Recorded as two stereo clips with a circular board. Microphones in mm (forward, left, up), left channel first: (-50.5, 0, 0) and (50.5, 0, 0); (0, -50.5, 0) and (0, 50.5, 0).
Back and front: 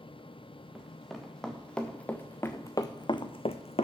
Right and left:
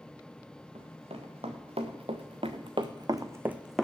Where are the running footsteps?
90° left, 2 m; by 3.9 s straight behind, 0.8 m.